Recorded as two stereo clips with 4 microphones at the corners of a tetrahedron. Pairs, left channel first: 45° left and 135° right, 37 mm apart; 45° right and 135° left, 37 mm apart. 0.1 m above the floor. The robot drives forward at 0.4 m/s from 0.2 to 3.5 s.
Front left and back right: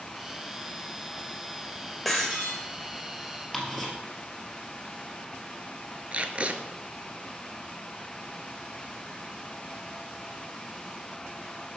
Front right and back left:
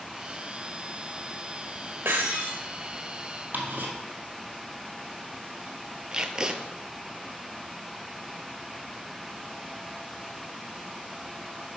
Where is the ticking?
130° left, 1.9 m.